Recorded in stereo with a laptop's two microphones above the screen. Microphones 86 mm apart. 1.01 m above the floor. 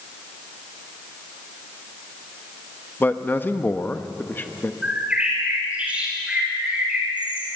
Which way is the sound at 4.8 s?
15° right (ahead or behind).